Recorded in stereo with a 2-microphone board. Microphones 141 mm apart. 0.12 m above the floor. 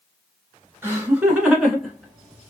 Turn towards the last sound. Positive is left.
turn(degrees=5)  # may be behind; listen again after turning